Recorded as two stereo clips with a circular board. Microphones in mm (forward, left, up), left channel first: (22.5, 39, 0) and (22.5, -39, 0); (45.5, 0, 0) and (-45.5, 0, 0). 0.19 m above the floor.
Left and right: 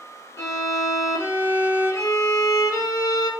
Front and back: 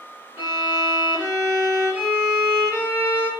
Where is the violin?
120° left, 1.8 m.